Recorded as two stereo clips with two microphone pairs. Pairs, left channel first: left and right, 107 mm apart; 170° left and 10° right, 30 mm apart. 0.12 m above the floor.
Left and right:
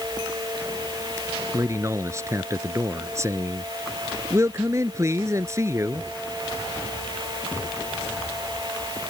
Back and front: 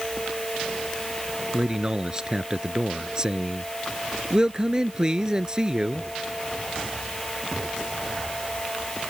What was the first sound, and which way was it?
A man speaking, 55° right.